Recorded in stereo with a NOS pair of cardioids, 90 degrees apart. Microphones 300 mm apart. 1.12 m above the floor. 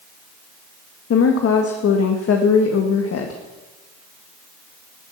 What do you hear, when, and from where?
1.1 s a woman speaking: 55° left, 1.6 m